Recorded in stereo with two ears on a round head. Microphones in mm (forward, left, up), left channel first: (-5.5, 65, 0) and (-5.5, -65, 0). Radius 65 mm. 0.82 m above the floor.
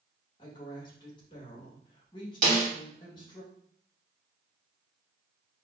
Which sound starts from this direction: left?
A woman speaking, at 0.4 s.